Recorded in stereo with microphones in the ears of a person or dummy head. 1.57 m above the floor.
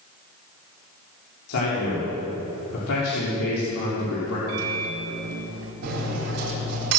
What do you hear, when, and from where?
1.5 s a man speaking: 85° left, 4 m
4.5 s a microwave: 80° right, 2.5 m
5.8 s cutlery clinking: 70° right (ahead or behind), 4.5 m